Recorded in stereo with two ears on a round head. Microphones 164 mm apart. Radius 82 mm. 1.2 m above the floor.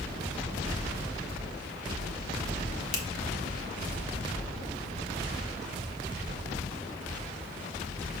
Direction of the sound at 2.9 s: 45° left (ahead or behind).